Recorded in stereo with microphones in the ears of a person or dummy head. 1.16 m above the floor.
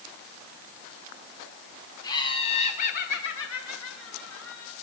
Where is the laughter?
20° left (ahead or behind), 1.9 m; by 4.7 s 65° left (ahead or behind), 2 m.